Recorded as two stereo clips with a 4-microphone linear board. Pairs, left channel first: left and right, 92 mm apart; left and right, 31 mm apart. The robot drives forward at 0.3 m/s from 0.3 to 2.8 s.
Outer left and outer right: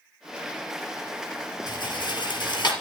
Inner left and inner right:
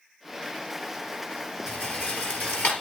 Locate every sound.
1.7 s a rattle: 55° left (ahead or behind), 4 m; by 2.7 s 60° left (ahead or behind), 4 m